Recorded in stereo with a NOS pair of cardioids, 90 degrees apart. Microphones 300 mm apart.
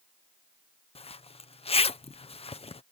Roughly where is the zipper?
Ahead.